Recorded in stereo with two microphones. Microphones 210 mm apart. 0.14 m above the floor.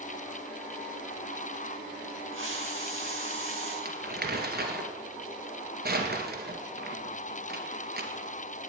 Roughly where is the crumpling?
Right.